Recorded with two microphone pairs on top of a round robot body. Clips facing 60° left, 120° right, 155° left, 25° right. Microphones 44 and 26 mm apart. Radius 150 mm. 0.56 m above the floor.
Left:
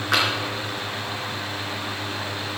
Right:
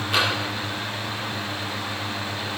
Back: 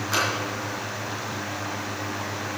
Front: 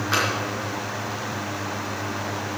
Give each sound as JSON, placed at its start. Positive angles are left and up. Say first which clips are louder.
{"t": 0.1, "sound": "tapping", "louder": "left 1 dB, front 2 dB", "azimuth_deg": 40, "distance_m": 3.5}